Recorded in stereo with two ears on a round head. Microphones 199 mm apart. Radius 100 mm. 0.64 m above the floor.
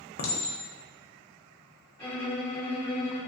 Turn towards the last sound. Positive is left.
turn(degrees=15)  # may be behind; listen again after turning